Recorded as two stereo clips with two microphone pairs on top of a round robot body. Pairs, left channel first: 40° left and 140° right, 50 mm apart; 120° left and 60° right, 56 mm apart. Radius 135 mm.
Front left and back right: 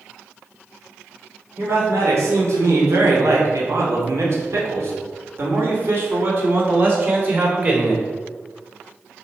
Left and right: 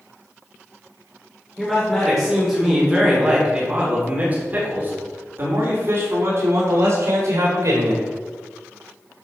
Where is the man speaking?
160° right, 3.5 m; by 8.1 s 85° right, 4 m.